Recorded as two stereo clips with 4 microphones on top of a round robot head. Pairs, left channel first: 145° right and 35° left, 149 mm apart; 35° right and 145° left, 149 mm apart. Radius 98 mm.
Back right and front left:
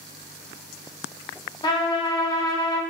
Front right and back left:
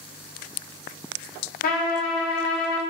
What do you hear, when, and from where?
1.6 s a trumpet: 75° right, 0.5 m